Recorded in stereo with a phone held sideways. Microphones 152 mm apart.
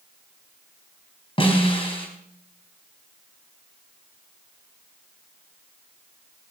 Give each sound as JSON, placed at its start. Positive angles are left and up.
{"t": 1.4, "sound": "a snare drum", "side_deg": 35, "distance_m": 3.5}